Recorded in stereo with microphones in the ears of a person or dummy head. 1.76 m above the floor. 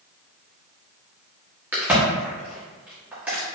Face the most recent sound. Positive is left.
turn(degrees=-5)  # may be behind; listen again after turning